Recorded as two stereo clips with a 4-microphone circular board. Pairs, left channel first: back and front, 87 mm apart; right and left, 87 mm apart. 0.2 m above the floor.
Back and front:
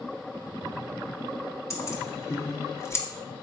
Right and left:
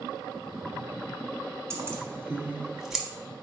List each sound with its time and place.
1.7 s keys jangling: 140° left, 1.4 m; by 3.0 s straight behind, 1.0 m